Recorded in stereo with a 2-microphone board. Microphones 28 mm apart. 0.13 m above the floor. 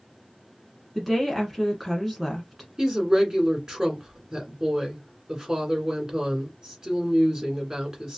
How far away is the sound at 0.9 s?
About 1.1 m.